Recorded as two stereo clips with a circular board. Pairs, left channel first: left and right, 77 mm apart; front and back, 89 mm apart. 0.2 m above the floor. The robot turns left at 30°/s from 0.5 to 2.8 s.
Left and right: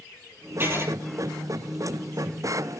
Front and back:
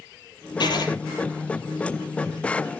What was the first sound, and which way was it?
Writing, 30° right.